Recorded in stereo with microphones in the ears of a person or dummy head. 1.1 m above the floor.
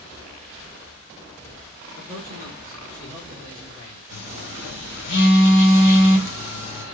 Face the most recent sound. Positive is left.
turn(degrees=75)  # may be behind; listen again after turning